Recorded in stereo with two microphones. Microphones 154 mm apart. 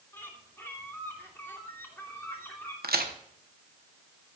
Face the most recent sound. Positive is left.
turn(degrees=-90)